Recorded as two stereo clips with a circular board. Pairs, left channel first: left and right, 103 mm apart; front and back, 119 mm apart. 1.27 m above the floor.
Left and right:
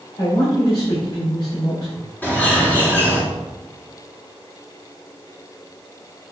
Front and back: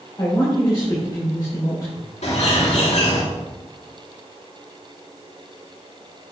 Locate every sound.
0.2 s a man speaking: 60° left, 3.5 m
2.2 s a bird: 20° left, 3 m